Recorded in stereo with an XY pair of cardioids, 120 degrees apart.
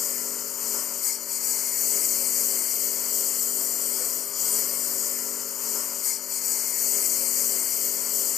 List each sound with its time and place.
0.0 s a lawn mower: 50° left